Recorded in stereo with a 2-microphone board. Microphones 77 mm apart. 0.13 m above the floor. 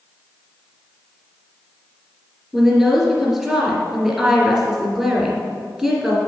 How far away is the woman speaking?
About 2 m.